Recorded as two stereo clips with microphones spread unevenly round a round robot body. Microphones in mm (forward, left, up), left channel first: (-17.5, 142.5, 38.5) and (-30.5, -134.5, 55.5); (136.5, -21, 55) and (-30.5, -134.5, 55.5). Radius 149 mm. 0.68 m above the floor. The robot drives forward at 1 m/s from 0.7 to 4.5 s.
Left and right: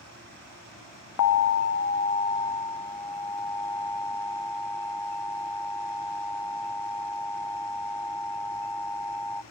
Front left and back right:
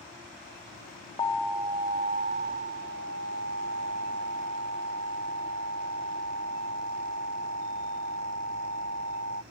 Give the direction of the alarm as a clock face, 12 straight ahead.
8 o'clock.